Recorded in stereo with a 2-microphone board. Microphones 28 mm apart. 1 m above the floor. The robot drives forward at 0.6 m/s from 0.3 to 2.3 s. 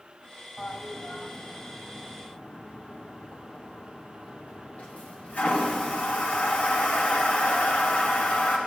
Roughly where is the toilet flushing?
Left.